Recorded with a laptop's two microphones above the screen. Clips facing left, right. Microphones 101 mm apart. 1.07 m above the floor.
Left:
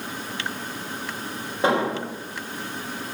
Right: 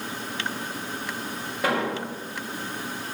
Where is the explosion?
25° left (ahead or behind), 1.3 m.